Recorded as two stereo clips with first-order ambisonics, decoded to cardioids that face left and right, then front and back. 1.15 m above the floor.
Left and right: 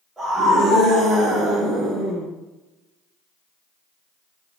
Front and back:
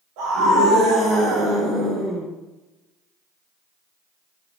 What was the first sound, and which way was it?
A scream, 175° right.